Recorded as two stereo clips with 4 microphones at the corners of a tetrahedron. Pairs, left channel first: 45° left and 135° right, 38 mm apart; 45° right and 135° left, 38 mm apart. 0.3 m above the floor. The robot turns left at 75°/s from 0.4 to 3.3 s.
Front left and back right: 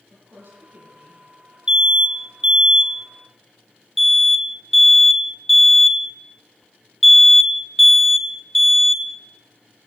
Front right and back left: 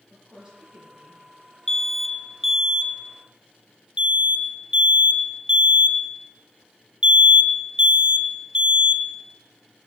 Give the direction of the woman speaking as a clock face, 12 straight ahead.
5 o'clock.